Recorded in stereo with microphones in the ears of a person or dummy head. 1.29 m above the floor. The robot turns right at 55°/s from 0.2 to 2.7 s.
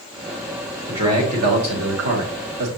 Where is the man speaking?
165° right, 2 m; by 2.7 s 70° right, 2 m.